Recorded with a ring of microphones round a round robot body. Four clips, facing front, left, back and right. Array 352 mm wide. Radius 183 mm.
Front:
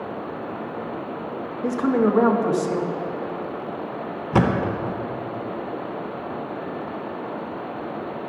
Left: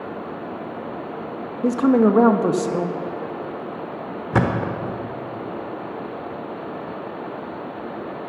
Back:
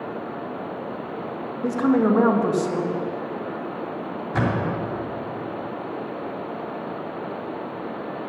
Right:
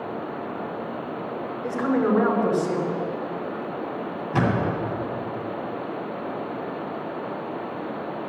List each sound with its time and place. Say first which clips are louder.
1.6 s a woman speaking: left 7 dB, back 1 dB; 90° left, 0.9 m
4.3 s a thud: left 2 dB, front 4 dB; 45° left, 0.9 m